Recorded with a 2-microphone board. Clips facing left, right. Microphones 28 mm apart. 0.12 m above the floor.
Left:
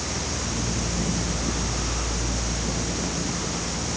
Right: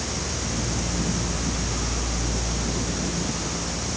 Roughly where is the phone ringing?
I don't hear a phone ringing.